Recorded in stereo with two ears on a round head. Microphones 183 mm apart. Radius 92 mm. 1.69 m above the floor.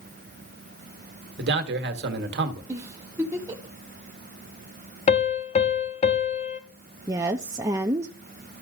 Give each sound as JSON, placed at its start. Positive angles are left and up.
{"t": 1.4, "sound": "a man speaking", "side_deg": -60, "distance_m": 1.3}
{"t": 2.7, "sound": "a giggle", "side_deg": -15, "distance_m": 1.2}
{"t": 5.1, "sound": "a piano", "side_deg": 35, "distance_m": 0.8}
{"t": 7.1, "sound": "a woman speaking", "side_deg": -15, "distance_m": 0.5}